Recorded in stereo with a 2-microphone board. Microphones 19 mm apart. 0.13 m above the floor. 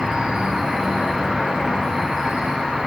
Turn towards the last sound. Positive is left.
turn(degrees=-50)  # may be behind; listen again after turning